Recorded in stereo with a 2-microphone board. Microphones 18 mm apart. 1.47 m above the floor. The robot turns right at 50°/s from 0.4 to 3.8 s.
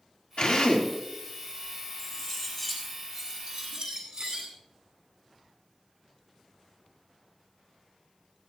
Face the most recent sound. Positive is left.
turn(degrees=-120)